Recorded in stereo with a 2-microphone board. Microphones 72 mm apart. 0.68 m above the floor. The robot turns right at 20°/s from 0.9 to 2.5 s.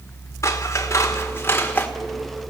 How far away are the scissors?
About 2 m.